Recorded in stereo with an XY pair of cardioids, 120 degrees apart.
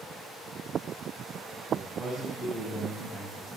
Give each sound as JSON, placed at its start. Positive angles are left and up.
{"t": 1.7, "sound": "a man speaking", "azimuth_deg": -45, "distance_m": 9.0}